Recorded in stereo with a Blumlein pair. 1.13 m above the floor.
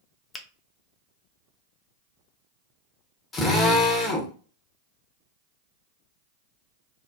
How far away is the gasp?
No gasp in this recording.